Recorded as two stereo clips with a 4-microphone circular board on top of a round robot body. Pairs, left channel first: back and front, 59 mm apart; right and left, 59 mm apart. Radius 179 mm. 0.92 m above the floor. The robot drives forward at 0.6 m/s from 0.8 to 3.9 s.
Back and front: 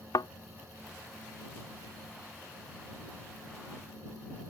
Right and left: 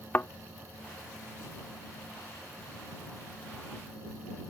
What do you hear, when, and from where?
0.1 s a thud: 150° right